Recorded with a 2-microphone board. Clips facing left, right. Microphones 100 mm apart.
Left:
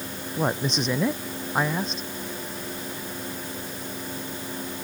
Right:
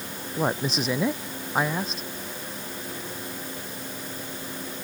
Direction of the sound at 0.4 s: 5° right (ahead or behind).